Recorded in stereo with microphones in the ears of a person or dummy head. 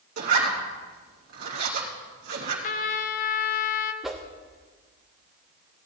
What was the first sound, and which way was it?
A zipper, 50° right (ahead or behind).